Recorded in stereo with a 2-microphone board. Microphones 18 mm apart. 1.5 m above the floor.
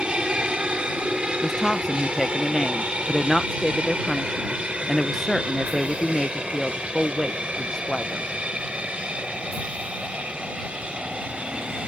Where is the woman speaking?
20° left (ahead or behind).